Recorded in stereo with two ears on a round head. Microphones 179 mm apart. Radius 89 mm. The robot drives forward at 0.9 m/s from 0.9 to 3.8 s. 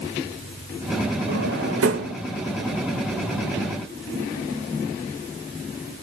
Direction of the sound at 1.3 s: 65° right (ahead or behind).